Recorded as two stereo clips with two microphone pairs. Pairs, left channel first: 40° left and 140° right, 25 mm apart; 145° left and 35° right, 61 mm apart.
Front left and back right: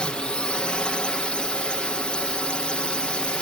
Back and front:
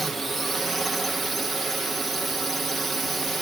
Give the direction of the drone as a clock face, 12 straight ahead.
10 o'clock.